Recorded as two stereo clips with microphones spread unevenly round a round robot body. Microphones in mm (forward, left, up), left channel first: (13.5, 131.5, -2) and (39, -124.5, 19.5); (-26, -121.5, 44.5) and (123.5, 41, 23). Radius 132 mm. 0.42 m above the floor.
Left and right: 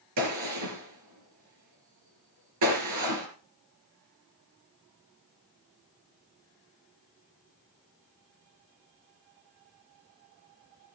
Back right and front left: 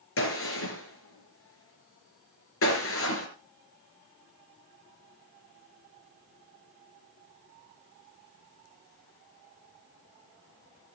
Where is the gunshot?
110° right, 4 m.